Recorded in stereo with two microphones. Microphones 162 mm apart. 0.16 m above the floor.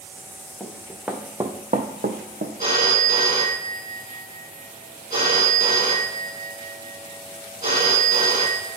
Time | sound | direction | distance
0.6 | running footsteps | 5° left (ahead or behind) | 0.9 m
2.6 | a phone ringing | 40° right (ahead or behind) | 1.1 m